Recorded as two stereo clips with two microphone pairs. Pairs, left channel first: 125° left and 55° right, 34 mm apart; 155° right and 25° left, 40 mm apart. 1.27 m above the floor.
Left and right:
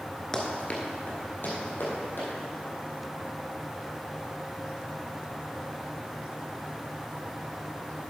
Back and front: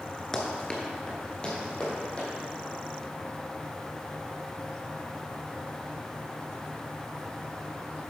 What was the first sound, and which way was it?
Running footsteps, 150° left.